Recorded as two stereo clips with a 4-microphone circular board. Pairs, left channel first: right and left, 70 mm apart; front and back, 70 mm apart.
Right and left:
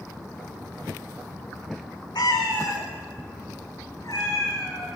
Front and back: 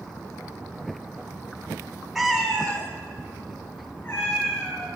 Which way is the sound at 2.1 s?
95° right.